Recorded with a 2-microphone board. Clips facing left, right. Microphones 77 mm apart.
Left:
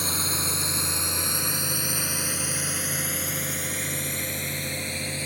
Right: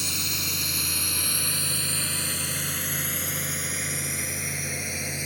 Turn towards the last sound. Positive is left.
turn(degrees=-10)  # may be behind; listen again after turning